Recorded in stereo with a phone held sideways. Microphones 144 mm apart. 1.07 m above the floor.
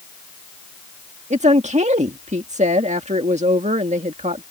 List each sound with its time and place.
1.3 s a woman speaking: 55° right (ahead or behind)